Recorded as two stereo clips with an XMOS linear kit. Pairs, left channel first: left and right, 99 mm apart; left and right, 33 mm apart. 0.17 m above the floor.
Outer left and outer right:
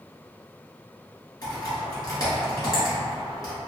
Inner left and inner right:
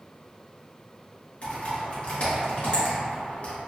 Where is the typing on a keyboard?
40° left (ahead or behind), 1.4 m.